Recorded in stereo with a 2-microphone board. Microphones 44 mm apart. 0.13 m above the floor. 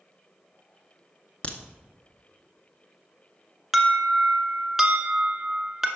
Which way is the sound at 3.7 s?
5° right (ahead or behind).